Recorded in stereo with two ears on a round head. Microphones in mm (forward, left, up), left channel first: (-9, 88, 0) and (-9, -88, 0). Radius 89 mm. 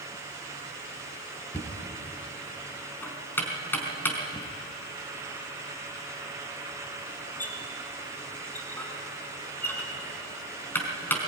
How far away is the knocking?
About 4 m.